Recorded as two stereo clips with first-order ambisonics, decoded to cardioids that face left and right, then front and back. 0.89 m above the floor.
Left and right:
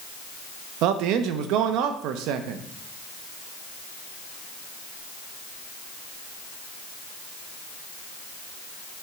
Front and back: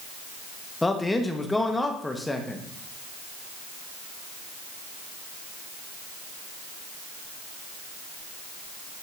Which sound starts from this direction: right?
A man speaking, at 0.8 s.